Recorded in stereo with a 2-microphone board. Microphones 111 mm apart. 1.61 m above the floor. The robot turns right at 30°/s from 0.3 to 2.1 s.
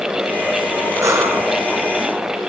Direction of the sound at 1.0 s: 30° right (ahead or behind).